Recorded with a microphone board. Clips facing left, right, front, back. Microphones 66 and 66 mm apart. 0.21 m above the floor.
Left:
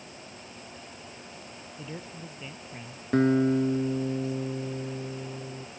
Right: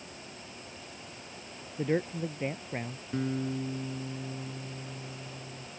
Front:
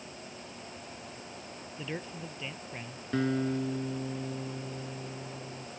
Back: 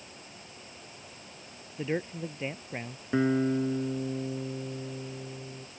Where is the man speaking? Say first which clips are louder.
Right 12 dB, back 8 dB; 120° right; by 3.0 s 130° right.